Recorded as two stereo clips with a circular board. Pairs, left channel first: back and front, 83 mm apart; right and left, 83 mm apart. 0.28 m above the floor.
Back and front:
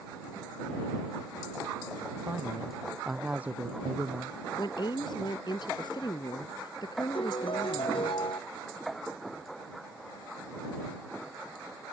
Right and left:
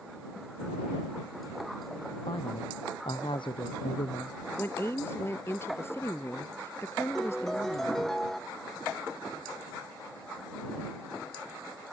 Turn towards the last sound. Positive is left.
turn(degrees=-175)